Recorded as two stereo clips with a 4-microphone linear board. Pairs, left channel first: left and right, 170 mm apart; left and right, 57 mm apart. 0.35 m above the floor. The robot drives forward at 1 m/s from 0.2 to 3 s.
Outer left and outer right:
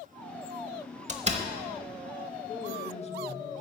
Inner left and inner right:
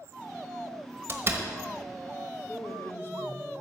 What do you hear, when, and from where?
1.1 s a door slam: 40° right (ahead or behind), 1.0 m; by 1.4 s 35° right (ahead or behind), 1.1 m
2.5 s a man speaking: 40° left (ahead or behind), 1.0 m; by 3.5 s 35° left (ahead or behind), 1.1 m